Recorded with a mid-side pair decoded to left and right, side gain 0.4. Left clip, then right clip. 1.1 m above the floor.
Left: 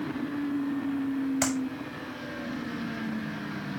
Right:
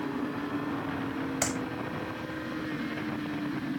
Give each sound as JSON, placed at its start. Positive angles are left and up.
{"t": 1.4, "sound": "a clap", "azimuth_deg": 10, "distance_m": 6.0}